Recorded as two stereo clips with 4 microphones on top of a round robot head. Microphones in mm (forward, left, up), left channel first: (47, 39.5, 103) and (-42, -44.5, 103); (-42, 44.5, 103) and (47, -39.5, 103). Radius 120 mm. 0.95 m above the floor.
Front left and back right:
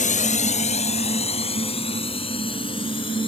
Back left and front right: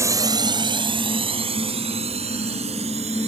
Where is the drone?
25° left; by 3.3 s 5° right.